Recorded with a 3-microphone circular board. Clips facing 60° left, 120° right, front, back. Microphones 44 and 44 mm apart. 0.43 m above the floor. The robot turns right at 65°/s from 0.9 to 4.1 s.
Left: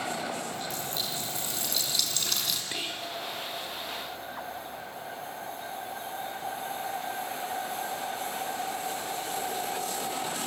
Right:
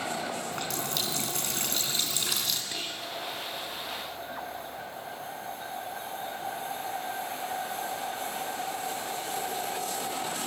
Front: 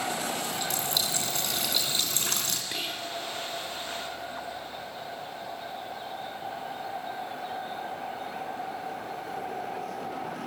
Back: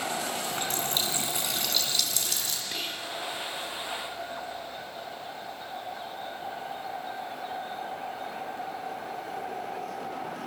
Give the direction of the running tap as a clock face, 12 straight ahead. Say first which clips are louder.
Right 2 dB, even; 4 o'clock.